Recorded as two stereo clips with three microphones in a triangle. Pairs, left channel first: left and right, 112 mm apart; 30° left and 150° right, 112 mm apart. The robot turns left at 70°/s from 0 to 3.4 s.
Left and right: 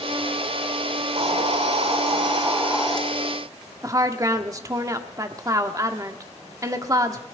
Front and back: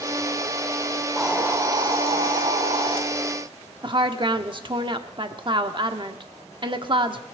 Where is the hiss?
50° right, 1.9 m; by 3.0 s 170° left, 1.9 m.